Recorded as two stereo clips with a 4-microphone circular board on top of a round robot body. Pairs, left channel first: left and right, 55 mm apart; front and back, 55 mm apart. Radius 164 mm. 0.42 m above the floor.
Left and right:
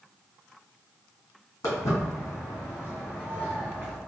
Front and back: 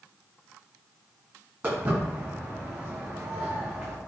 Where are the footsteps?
120° left, 2.0 m; by 4.0 s 165° left, 1.9 m.